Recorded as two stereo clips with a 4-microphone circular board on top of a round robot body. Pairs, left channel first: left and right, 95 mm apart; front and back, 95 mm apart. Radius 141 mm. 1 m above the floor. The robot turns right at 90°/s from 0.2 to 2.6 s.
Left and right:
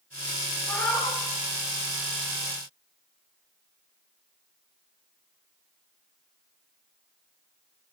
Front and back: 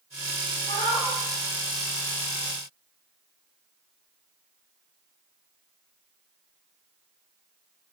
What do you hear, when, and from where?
0.7 s a cat meowing: 10° left, 1.3 m; by 1.2 s 55° left, 1.3 m